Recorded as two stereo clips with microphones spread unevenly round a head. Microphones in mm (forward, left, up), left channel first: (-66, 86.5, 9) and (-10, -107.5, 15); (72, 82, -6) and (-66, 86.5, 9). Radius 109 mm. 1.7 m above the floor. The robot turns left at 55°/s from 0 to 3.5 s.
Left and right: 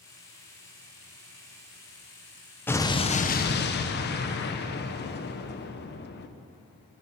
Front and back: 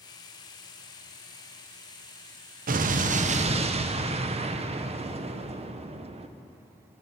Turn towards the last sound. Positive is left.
turn(degrees=140)